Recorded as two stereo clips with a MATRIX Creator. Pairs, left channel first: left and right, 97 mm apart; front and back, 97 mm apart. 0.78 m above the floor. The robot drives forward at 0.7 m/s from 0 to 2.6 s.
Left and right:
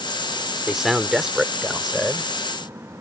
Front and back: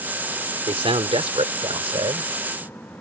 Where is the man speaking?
175° right.